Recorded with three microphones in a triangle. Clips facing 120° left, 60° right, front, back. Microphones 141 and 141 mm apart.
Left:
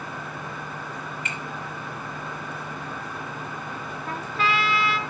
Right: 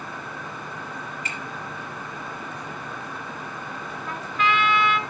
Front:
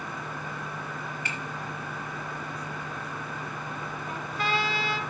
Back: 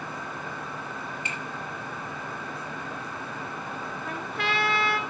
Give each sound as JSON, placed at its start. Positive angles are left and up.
{"t": 1.2, "sound": "a finger snap", "azimuth_deg": -115, "distance_m": 5.0}
{"t": 4.1, "sound": "a trumpet", "azimuth_deg": 170, "distance_m": 1.5}